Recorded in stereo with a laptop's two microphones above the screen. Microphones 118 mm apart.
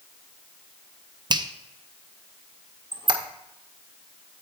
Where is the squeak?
40° right (ahead or behind), 0.7 m.